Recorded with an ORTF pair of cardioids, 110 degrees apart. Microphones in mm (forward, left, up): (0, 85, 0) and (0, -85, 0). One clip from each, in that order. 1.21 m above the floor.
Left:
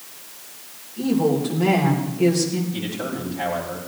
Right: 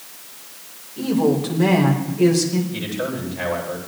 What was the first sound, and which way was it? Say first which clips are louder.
A woman speaking: right 1 dB; 45° right.